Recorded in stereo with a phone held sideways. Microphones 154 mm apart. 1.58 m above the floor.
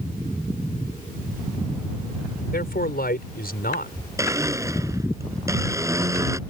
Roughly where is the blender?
Right.